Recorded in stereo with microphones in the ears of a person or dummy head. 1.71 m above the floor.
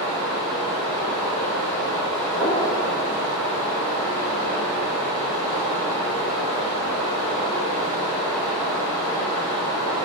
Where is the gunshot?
15° right (ahead or behind), 1.6 m.